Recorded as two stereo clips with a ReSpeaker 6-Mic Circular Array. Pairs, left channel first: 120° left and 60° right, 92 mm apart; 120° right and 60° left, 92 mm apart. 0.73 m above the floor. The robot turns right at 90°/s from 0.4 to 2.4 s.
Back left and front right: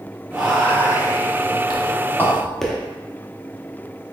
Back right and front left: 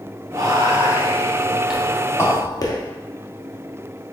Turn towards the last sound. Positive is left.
turn(degrees=-160)